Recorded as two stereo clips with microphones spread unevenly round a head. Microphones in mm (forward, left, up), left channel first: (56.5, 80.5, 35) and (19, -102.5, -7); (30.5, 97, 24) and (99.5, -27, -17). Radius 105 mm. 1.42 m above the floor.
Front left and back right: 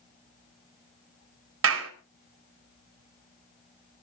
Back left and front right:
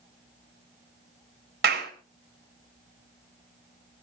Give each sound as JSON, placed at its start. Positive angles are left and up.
{"t": 1.6, "sound": "a clap", "azimuth_deg": -100, "distance_m": 4.0}